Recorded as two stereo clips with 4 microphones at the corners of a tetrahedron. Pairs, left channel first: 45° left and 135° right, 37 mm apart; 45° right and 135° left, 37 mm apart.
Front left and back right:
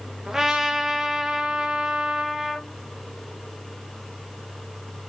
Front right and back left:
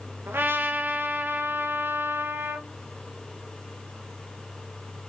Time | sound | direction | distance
0.3 | a trumpet | 150° left | 0.5 m